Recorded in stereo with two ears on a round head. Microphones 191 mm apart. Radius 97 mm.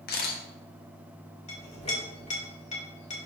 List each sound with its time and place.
0.1 s a camera shutter: 45° left (ahead or behind), 1.4 m
1.5 s a clink: 30° left (ahead or behind), 2.5 m